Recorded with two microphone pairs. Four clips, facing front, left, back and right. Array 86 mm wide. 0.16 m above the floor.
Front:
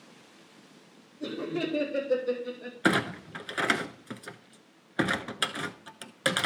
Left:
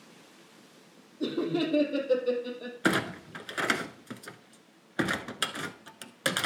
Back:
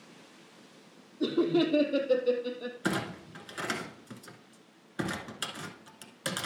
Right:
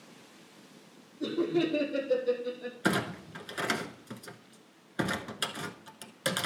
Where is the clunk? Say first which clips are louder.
Left 2 dB, front 7 dB; 35° left, 0.7 m.